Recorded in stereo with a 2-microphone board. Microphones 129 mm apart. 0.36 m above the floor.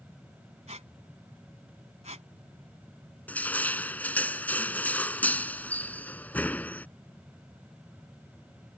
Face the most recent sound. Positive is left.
turn(degrees=15)  # may be behind; listen again after turning